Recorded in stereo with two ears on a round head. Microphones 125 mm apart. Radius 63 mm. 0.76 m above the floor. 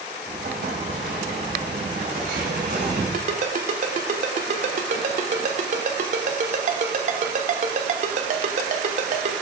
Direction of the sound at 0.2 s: 70° right (ahead or behind).